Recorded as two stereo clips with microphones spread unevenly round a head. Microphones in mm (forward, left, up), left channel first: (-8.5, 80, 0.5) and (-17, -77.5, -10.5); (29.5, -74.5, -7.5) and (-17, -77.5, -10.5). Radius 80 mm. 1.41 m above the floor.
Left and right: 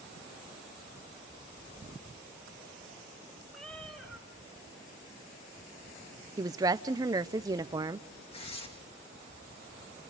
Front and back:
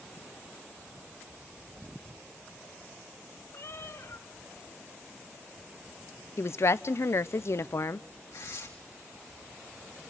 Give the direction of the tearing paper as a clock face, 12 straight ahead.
11 o'clock.